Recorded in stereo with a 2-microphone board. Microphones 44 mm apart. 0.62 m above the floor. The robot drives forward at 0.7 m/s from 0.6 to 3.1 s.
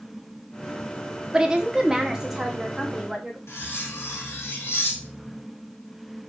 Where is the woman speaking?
20° right (ahead or behind), 0.6 m; by 3.4 s 10° right (ahead or behind), 1.6 m.